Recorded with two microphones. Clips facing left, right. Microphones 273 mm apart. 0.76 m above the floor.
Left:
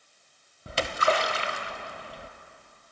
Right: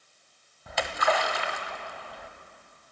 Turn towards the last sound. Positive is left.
turn(degrees=35)  # may be behind; listen again after turning